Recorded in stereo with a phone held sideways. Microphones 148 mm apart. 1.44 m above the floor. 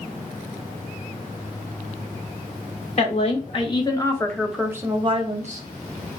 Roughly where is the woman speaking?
Left.